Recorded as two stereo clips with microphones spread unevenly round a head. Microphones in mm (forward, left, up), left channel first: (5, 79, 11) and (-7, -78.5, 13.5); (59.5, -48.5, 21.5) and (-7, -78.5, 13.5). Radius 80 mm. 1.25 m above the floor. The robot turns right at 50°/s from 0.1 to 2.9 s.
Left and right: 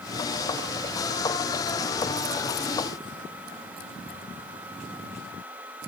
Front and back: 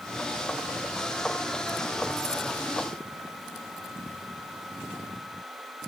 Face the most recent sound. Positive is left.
No sound to turn to.